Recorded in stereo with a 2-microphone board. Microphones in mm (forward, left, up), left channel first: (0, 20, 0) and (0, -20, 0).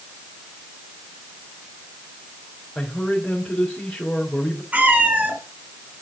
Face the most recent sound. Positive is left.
turn(degrees=-40)  # may be behind; listen again after turning